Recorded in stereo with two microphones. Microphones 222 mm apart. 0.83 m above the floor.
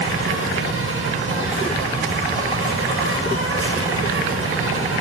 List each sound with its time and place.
0.0 s an insect: 70° right (ahead or behind), 4.5 m